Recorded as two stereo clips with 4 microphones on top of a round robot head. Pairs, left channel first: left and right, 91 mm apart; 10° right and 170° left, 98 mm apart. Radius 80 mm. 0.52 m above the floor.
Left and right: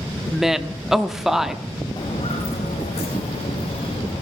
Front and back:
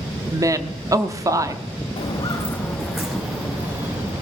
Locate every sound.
0.3 s a woman speaking: 175° right, 0.8 m
2.0 s footsteps: 30° left, 1.6 m; by 4.2 s 110° left, 3.5 m